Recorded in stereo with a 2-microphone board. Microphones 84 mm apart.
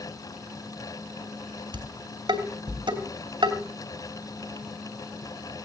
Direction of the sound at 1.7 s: 70° right (ahead or behind).